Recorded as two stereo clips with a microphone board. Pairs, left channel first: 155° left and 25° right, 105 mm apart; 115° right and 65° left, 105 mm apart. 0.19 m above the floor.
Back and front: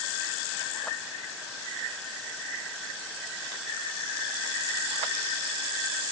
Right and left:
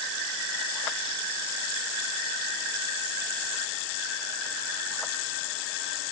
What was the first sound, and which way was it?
Only background noise.